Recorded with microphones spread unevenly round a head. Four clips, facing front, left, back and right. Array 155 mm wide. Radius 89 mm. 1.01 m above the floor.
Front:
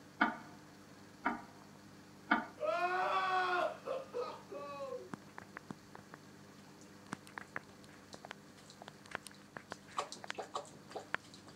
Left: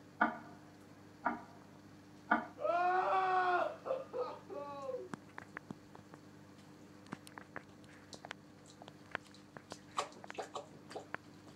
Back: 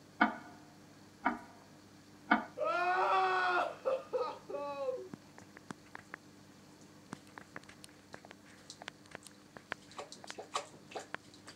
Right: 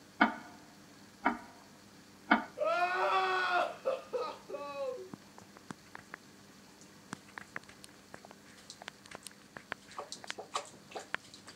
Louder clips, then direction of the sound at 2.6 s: Right 2 dB, back 3 dB; 140° right.